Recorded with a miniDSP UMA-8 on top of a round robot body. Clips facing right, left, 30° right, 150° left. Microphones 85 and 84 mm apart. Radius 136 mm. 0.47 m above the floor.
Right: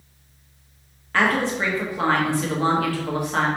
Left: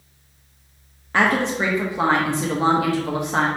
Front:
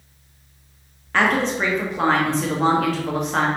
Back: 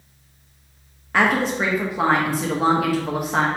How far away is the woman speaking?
About 1.3 m.